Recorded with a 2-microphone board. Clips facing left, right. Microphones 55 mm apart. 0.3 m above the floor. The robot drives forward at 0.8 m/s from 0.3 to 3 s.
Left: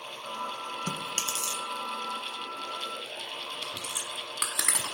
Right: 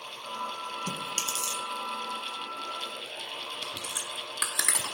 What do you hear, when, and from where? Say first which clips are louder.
0.9 s chewing: even; 35° left (ahead or behind), 1.1 m; by 1.6 s 20° left (ahead or behind), 1.7 m
3.6 s chewing: even; 10° left (ahead or behind), 1.3 m